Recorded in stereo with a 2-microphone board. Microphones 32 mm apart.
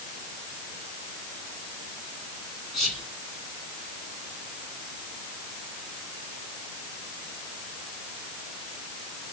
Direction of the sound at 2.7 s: 10° left (ahead or behind).